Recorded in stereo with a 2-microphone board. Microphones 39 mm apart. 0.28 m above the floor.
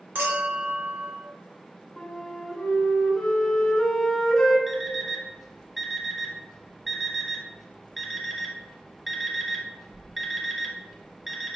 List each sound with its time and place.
0.1 s a clink: 60° right (ahead or behind), 1.1 m
2.0 s a flute: 10° left (ahead or behind), 0.9 m
4.7 s an alarm clock: 5° right (ahead or behind), 0.9 m